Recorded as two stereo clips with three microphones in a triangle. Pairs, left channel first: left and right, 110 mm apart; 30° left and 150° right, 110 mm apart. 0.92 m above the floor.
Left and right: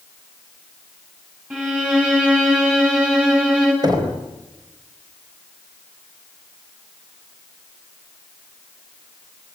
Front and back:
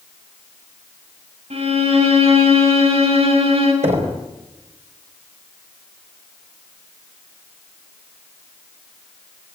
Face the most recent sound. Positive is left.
turn(degrees=-140)